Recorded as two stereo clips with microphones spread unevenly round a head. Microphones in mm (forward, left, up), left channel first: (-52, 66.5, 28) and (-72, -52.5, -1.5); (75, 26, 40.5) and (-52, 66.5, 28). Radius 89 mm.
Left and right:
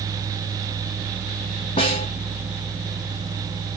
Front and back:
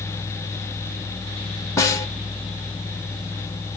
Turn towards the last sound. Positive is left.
turn(degrees=45)